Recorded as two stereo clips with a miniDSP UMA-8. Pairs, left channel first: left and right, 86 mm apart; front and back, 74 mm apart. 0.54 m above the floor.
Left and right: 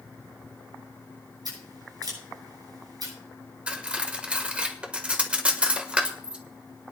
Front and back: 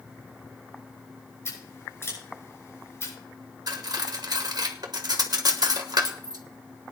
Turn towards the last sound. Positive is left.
turn(degrees=-165)